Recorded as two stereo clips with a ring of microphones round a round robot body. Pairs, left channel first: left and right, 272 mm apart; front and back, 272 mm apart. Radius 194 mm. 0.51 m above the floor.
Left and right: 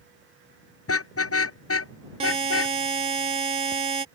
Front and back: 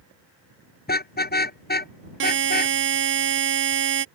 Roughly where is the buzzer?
Behind right.